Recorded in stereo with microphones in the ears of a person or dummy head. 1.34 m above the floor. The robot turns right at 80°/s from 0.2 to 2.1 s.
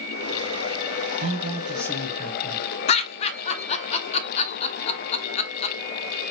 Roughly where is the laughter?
Left.